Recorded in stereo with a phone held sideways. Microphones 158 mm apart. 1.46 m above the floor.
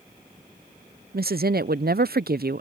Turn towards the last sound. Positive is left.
turn(degrees=-75)  # may be behind; listen again after turning